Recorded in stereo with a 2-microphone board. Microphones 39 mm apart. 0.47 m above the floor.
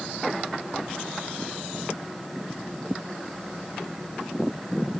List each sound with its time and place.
Only background noise.